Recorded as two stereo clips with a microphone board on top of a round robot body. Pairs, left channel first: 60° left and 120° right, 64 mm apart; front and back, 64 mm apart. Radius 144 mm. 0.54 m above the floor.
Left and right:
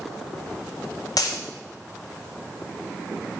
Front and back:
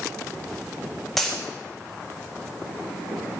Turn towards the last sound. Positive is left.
turn(degrees=85)